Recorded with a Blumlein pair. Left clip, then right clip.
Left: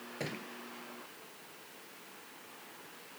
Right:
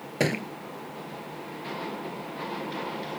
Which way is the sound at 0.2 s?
55° right.